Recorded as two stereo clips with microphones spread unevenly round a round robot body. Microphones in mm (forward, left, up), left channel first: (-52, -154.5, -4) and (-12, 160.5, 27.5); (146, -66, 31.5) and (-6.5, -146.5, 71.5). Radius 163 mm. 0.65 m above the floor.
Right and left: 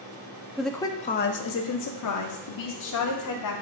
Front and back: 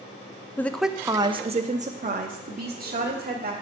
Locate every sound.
0.6 s a woman speaking: 10° right, 0.5 m; by 3.5 s 115° right, 1.5 m